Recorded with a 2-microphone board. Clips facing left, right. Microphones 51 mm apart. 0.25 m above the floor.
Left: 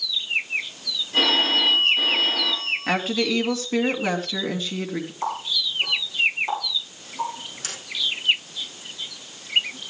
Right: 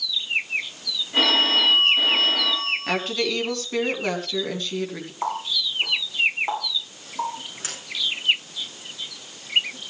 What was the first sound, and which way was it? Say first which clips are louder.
A phone ringing: right 1 dB; 20° right (ahead or behind).